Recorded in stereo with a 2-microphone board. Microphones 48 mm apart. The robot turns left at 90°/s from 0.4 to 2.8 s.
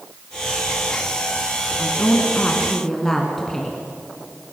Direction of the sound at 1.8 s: 105° left.